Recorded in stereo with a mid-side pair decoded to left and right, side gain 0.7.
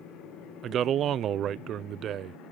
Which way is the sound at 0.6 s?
45° right.